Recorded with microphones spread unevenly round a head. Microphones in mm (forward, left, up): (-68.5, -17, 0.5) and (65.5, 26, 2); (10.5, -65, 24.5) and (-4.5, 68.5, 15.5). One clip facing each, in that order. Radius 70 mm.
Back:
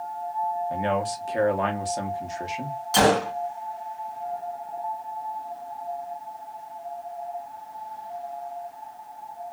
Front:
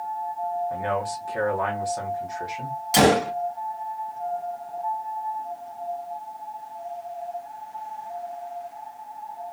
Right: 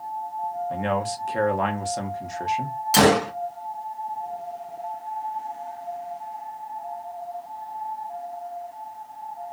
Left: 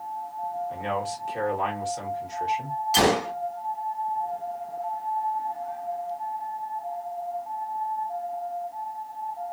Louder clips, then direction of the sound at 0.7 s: Back 1 dB, right 4 dB; 105° right.